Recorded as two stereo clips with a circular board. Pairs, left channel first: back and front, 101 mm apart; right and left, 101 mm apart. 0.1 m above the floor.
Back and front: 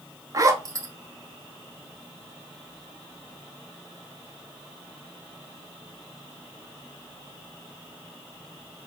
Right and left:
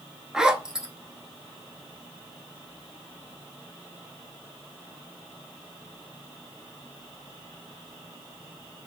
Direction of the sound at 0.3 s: 10° left.